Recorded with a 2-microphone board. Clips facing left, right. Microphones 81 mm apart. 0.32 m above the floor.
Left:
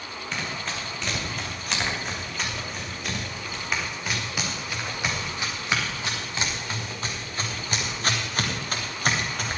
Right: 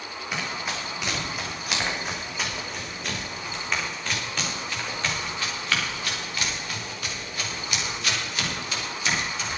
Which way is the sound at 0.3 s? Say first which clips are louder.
Right 1 dB; 10° right (ahead or behind).